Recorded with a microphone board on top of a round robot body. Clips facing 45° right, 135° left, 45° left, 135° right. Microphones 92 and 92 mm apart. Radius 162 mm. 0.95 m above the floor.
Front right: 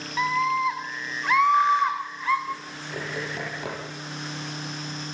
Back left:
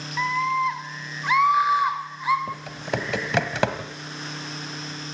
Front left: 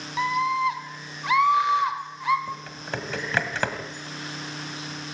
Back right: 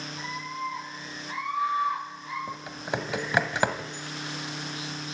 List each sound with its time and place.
0.2 s a scream: 40° left, 3.5 m; by 2.4 s 60° left, 3.5 m
2.5 s typing on a keyboard: 150° left, 1.8 m